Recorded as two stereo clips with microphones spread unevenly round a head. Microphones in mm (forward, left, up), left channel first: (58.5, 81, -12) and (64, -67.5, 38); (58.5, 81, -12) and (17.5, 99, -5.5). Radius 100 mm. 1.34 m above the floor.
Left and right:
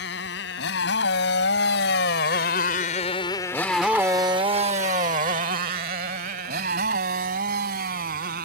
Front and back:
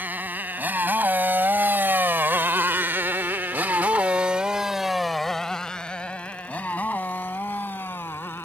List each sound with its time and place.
0.0 s a motorcycle: 120° left; by 8.5 s 90° right